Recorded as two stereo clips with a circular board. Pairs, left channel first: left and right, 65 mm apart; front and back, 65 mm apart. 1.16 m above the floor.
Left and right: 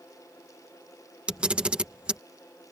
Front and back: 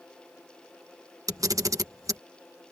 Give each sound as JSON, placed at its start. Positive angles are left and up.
{"t": 1.3, "sound": "a camera shutter", "azimuth_deg": -165}